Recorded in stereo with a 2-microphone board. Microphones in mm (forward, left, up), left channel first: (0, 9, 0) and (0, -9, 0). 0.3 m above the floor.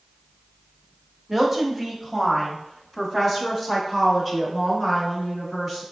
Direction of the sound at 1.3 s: 20° right (ahead or behind).